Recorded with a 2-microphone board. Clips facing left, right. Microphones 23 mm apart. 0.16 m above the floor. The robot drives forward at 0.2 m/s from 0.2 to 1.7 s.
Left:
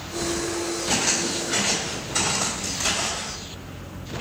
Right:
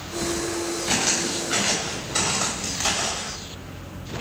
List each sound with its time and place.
0.9 s footsteps: 60° right (ahead or behind), 3.5 m; by 3.3 s 35° right (ahead or behind), 3.5 m